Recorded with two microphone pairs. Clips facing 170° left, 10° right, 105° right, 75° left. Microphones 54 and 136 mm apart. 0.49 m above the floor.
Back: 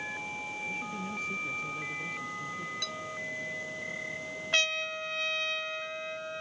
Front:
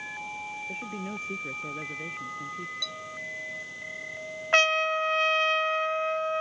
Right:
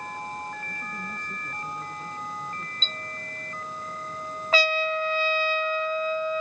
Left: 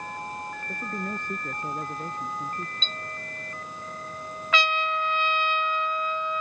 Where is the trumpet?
50° right.